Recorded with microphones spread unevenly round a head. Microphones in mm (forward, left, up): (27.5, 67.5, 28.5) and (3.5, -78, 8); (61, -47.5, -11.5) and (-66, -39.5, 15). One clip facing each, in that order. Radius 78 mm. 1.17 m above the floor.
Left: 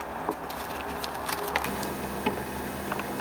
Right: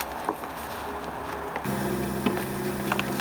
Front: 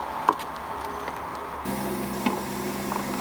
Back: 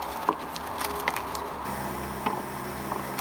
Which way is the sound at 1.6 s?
70° right.